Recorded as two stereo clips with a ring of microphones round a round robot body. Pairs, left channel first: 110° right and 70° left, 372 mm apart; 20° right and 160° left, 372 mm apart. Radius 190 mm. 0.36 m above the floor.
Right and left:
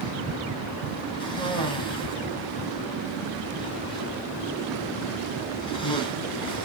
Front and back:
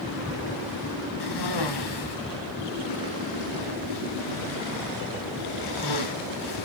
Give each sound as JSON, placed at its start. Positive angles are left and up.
{"t": 1.2, "sound": "a cough", "azimuth_deg": -35, "distance_m": 3.0}